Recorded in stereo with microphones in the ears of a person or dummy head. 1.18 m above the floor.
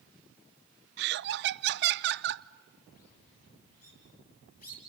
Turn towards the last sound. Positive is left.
turn(degrees=45)  # may be behind; listen again after turning